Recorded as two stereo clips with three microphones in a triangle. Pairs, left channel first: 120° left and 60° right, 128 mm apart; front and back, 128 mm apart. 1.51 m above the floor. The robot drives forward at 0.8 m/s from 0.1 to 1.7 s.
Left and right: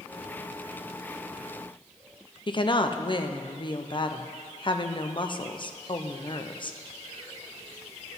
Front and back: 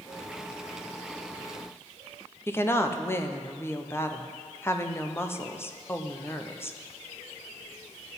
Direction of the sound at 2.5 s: 70° left.